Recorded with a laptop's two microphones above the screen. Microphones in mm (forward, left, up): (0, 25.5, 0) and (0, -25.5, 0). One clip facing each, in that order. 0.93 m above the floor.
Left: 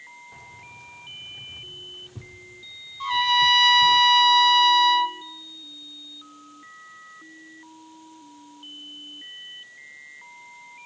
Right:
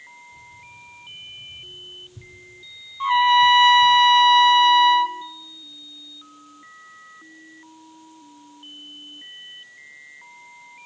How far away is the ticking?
I don't hear ticking.